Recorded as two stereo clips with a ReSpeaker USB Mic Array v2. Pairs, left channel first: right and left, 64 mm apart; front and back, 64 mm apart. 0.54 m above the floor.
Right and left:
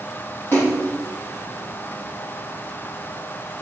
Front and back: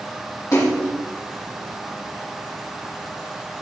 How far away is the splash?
About 7.5 m.